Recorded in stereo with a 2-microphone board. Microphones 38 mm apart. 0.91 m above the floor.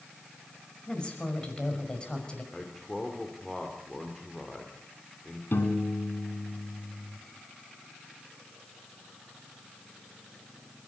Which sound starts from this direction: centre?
A man speaking, at 2.5 s.